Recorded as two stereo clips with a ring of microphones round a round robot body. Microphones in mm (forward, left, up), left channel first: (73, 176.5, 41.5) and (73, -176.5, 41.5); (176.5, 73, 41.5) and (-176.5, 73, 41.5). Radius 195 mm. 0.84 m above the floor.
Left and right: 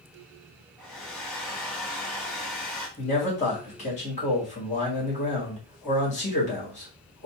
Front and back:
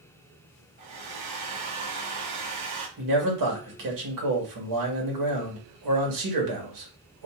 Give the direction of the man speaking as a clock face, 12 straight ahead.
7 o'clock.